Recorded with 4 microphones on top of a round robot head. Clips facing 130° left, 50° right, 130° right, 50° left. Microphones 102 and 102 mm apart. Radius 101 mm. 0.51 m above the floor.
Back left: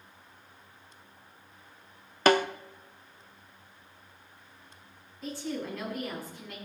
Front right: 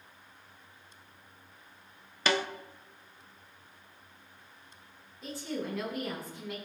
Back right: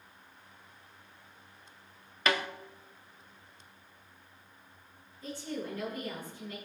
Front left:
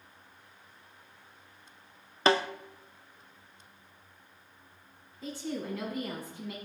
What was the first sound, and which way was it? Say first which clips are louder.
A snare drum: back left 7 dB, front left 5 dB; 100° left.